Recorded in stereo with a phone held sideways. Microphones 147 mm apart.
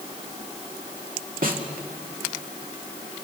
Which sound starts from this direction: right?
A snare drum, at 1.4 s.